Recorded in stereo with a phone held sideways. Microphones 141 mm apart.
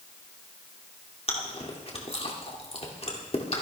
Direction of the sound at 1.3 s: 45° left (ahead or behind).